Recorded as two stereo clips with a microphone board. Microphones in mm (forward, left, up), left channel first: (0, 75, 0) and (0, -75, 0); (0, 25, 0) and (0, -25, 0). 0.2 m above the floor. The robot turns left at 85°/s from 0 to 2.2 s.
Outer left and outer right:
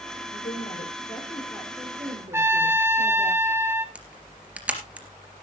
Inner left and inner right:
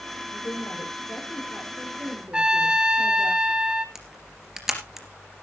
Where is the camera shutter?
10° right (ahead or behind), 3 m.